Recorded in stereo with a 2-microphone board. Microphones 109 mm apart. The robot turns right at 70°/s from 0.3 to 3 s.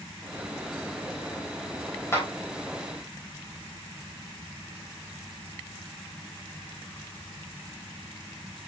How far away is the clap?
About 3.5 m.